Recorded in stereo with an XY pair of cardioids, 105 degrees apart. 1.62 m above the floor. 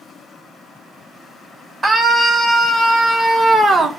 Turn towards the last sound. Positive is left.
turn(degrees=-30)